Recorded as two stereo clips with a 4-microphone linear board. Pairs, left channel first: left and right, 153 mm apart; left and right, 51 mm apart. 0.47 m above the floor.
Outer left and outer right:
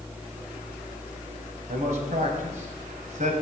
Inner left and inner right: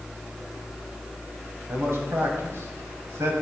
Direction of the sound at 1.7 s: 60° right (ahead or behind).